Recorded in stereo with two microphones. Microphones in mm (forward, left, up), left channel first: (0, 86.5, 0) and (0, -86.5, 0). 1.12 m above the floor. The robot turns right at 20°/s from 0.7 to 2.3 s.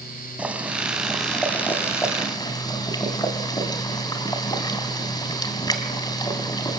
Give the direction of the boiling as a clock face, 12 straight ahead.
12 o'clock.